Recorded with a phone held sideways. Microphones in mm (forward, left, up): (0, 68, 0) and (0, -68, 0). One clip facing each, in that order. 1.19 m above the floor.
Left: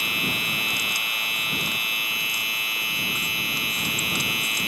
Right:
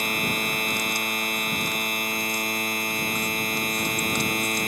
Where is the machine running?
45° right (ahead or behind).